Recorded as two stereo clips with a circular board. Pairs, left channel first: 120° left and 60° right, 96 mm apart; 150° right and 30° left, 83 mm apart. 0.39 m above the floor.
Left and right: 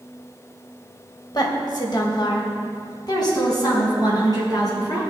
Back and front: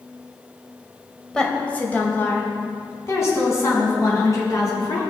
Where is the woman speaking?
130° left, 2 m; by 5.0 s 165° left, 6 m.